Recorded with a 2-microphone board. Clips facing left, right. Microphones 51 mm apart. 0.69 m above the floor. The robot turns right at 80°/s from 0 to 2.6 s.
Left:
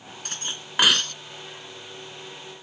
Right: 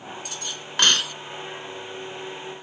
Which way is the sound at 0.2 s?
55° left (ahead or behind).